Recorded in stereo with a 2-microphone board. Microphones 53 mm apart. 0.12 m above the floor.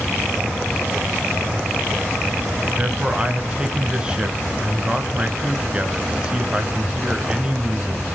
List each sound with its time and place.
2.8 s a man speaking: 20° right (ahead or behind), 1.1 m